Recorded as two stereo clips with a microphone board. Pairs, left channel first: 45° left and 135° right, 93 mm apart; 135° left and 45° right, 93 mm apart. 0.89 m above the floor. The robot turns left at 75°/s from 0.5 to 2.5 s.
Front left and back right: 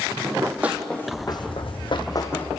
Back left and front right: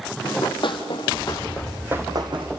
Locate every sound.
0.2 s running footsteps: 170° left, 2 m; by 2.5 s 30° right, 2.5 m